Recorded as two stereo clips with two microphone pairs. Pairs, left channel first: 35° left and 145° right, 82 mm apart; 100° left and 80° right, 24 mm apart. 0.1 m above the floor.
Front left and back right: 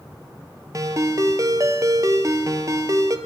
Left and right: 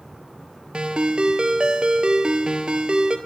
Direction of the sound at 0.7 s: 110° right.